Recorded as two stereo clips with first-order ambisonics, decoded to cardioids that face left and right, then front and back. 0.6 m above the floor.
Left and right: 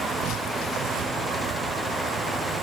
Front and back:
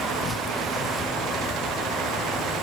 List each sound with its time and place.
0.0 s an insect: 60° right